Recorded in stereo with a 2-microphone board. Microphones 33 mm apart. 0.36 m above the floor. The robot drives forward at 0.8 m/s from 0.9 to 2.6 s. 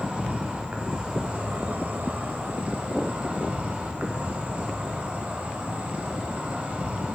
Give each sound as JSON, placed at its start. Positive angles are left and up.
{"t": 0.0, "sound": "an insect", "side_deg": -35, "distance_m": 1.1}